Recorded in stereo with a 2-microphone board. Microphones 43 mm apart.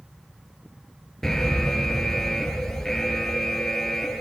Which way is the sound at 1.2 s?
10° left (ahead or behind).